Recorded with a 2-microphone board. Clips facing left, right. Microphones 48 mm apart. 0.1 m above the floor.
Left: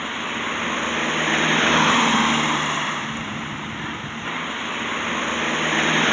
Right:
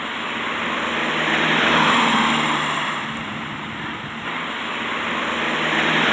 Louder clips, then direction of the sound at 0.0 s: Right 1 dB; 5° right (ahead or behind).